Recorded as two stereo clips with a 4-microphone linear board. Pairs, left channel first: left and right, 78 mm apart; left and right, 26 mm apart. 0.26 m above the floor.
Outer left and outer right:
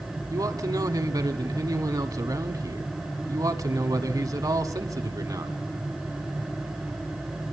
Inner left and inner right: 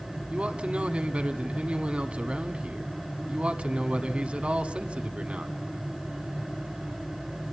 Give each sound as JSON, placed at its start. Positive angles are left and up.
{"t": 0.3, "sound": "a man speaking", "side_deg": -50, "distance_m": 1.6}